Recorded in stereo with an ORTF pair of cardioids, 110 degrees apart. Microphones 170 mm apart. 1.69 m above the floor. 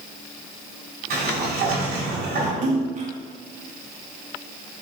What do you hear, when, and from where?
1.1 s a sliding door: 70° right, 3.5 m
2.6 s a splash: 45° right, 2 m